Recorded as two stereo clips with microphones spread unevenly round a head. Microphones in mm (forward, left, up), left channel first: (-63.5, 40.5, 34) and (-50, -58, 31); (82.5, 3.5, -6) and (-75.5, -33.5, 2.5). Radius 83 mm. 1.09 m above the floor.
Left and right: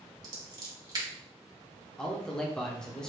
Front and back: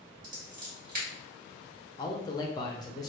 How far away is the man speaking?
About 0.6 m.